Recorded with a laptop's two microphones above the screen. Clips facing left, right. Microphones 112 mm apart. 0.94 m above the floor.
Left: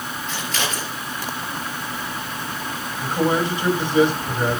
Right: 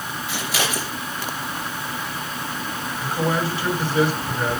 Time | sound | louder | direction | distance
0.3 | scissors | right 2 dB | 10° right (ahead or behind) | 4 m
3.0 | a man speaking | left 3 dB | 20° left (ahead or behind) | 5.5 m